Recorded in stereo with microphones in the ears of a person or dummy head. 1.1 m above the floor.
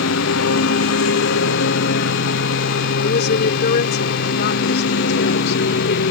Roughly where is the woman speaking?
Left.